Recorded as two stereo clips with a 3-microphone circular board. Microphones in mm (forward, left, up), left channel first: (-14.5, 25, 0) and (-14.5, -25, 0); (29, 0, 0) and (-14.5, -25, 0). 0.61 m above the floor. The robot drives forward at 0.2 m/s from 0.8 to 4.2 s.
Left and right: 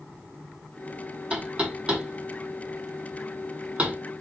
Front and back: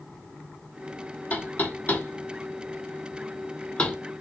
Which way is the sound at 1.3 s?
20° right.